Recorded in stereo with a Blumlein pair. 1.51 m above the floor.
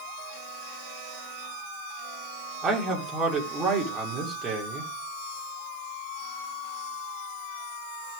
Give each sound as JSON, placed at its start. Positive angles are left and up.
{"t": 2.6, "sound": "a man speaking", "azimuth_deg": -20, "distance_m": 3.5}